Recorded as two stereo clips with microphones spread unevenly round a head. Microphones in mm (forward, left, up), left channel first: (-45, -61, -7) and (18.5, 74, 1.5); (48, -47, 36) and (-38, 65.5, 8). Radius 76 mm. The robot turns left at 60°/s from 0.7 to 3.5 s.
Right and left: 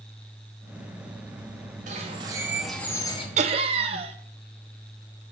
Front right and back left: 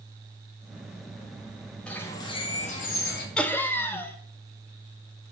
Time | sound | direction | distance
1.9 | a bird | 25° left | 1.0 m
3.4 | laughter | 25° left | 0.9 m